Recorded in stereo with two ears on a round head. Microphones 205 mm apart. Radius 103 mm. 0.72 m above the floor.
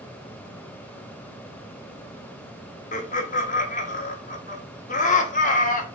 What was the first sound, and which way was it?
Laughter, 35° left (ahead or behind).